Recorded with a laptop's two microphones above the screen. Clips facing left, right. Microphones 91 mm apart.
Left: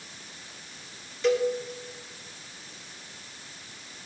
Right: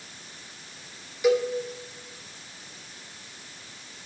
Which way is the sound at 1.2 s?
10° right (ahead or behind).